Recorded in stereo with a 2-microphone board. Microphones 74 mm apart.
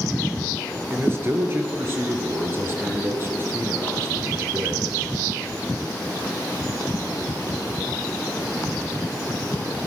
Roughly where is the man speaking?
Right.